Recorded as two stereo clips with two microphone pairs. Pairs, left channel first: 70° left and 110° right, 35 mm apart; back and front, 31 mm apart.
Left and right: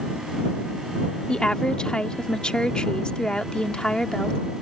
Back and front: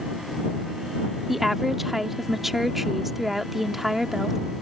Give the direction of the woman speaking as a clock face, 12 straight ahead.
10 o'clock.